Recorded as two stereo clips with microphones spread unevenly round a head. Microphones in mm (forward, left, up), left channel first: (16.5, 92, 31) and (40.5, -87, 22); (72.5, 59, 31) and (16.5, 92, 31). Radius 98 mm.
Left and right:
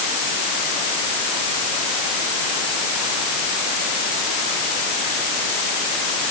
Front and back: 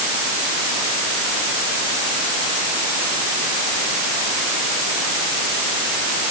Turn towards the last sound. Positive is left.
No sound to turn to.